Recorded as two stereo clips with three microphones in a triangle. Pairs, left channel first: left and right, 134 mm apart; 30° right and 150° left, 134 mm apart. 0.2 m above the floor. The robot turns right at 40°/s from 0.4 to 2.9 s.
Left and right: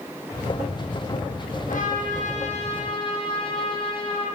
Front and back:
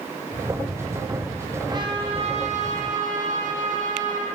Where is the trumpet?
90° left, 9 m; by 4.3 s 140° left, 9 m.